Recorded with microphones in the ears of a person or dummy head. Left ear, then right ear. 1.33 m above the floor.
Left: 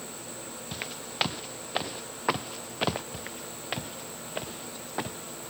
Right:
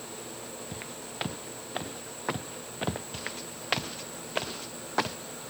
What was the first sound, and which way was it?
Footsteps, 35° left (ahead or behind).